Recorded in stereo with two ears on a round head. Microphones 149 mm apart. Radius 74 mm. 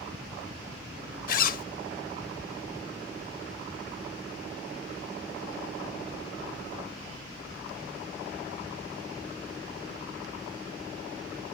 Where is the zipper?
50° left (ahead or behind), 0.7 m.